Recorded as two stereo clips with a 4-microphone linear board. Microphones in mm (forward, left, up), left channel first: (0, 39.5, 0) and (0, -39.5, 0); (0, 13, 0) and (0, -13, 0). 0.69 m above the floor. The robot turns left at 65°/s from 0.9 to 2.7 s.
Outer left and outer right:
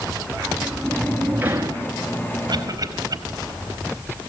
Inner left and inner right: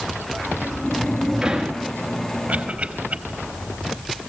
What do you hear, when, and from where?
0.4 s a sliding door: 10° left, 2.5 m; by 1.9 s 55° right, 2.5 m
2.5 s a cough: 70° right (ahead or behind), 4.5 m; by 3.2 s 60° right (ahead or behind), 4.5 m